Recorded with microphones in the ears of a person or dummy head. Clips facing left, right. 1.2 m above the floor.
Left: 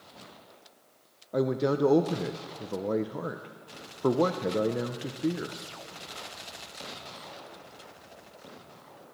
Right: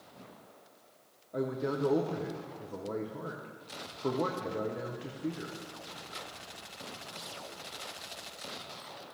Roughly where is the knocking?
I don't hear knocking.